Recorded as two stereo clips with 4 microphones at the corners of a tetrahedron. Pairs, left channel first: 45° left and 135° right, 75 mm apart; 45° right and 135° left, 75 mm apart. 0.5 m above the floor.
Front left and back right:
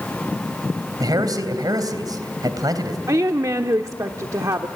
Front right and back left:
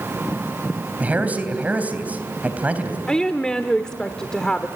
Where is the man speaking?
155° right, 3 m.